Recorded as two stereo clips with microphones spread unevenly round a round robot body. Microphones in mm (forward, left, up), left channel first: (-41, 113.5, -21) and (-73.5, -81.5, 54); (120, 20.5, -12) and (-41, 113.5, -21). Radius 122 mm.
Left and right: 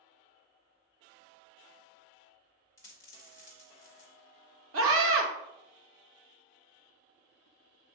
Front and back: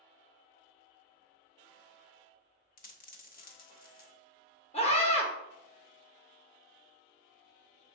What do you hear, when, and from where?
2.8 s a dropped coin: 10° left, 0.9 m
4.7 s a scream: 85° right, 0.9 m